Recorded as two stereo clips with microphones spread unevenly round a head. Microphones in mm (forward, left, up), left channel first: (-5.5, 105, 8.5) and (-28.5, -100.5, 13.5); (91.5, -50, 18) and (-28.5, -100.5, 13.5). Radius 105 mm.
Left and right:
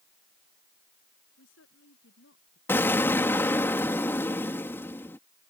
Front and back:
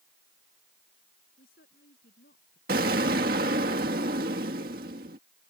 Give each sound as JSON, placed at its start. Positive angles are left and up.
{"t": 1.4, "sound": "a woman speaking", "azimuth_deg": 50}
{"t": 2.7, "sound": "an explosion", "azimuth_deg": 165}